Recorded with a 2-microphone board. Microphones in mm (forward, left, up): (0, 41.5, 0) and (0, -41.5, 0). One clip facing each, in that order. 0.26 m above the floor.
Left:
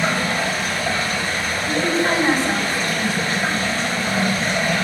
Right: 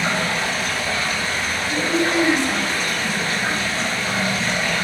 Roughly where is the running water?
Left.